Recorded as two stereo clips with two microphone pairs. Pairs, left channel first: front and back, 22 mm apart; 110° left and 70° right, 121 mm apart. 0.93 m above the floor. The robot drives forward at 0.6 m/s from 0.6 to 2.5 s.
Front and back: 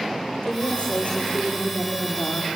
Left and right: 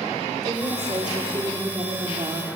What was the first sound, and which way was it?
A woman speaking, 15° right.